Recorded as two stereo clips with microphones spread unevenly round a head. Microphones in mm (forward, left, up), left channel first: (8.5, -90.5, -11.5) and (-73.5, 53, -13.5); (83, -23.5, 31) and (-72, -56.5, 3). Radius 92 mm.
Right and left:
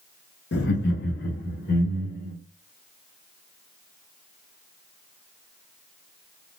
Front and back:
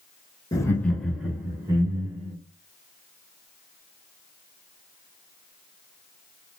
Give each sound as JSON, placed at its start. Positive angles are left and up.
{"t": 0.5, "sound": "laughter", "azimuth_deg": -50, "distance_m": 0.9}